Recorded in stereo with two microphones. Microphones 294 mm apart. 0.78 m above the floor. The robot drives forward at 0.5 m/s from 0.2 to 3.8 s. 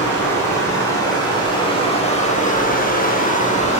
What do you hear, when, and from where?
0.0 s running water: 10° left (ahead or behind), 1.5 m; by 3.8 s 20° left (ahead or behind), 0.7 m